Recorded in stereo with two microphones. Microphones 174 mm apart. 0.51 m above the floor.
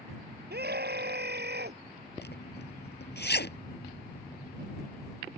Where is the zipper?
80° left.